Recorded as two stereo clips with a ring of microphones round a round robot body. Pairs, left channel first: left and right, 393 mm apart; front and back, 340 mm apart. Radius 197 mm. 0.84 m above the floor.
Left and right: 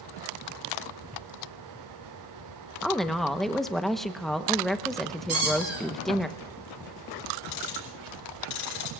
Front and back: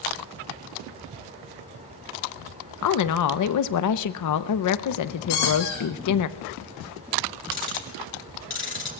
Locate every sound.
2.8 s a woman speaking: straight ahead, 0.8 m
5.3 s a squeak: 35° right, 9 m
7.5 s ticking: 55° left, 4.5 m